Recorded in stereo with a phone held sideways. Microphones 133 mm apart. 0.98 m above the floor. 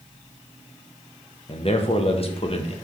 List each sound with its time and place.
1.5 s a man speaking: 45° left (ahead or behind), 1.1 m